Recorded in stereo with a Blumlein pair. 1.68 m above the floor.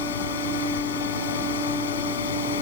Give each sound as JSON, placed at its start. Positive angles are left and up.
{"t": 0.0, "sound": "a fan", "azimuth_deg": 65}